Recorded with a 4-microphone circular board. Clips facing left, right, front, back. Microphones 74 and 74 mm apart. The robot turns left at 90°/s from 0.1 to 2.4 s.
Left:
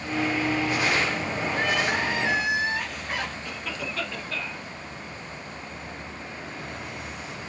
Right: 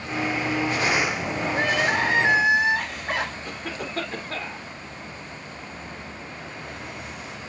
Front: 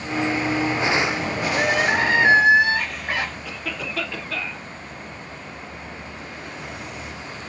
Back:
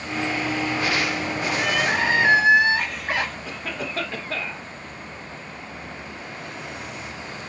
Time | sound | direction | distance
1.5 | crying | 35° right | 4 m
3.5 | a cough | 130° right | 2.5 m